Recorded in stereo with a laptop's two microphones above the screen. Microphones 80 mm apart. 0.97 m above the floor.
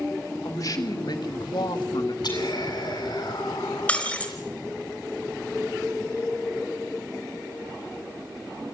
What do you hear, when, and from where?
0.5 s a man speaking: 45° left (ahead or behind), 2.5 m; by 2.1 s 65° left (ahead or behind), 1.7 m
2.2 s whispering: 60° left (ahead or behind), 8 m
3.9 s breaking glass: 15° left (ahead or behind), 3.5 m